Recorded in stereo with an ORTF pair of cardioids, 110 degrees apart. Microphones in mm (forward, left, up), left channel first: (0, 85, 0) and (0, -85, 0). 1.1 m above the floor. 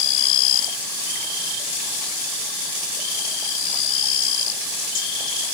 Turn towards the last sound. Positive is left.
No sound to turn to.